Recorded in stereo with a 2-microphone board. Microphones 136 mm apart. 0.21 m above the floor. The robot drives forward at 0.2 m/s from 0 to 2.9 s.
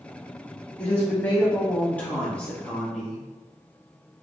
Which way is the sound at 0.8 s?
15° left (ahead or behind).